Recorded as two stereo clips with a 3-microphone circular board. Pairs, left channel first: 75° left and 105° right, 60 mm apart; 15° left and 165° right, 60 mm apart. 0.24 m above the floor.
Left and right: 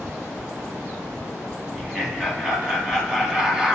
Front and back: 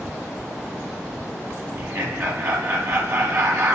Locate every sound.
1.7 s laughter: straight behind, 2.0 m